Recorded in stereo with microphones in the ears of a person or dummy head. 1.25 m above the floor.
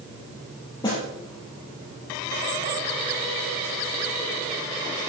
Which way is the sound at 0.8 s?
20° left (ahead or behind).